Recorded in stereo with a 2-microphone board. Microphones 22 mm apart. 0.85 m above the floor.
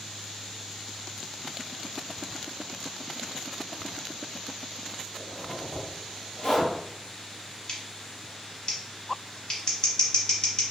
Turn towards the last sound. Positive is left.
turn(degrees=35)  # may be behind; listen again after turning